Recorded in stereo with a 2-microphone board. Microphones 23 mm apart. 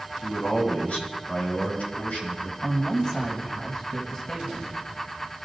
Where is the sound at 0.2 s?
60° left (ahead or behind), 3 m; by 2.5 s 75° left (ahead or behind), 4 m.